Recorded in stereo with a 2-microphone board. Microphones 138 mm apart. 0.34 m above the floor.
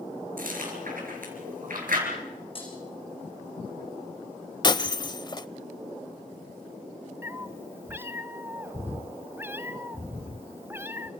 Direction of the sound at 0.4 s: 75° right (ahead or behind).